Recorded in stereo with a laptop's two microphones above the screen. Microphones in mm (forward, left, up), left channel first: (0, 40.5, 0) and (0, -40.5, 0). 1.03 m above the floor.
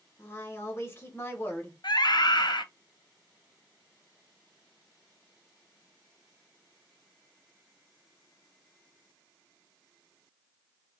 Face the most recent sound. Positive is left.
turn(degrees=60)  # may be behind; listen again after turning